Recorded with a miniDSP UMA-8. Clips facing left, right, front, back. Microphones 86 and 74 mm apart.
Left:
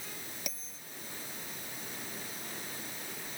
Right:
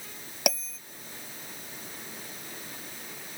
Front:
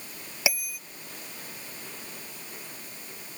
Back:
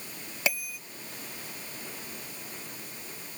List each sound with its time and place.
0.5 s a bell: 80° right